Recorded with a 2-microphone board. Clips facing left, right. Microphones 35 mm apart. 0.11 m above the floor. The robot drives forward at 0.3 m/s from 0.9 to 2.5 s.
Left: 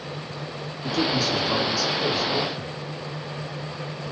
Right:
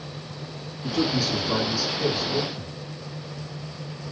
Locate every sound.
0.8 s a man speaking: 15° right (ahead or behind), 1.3 m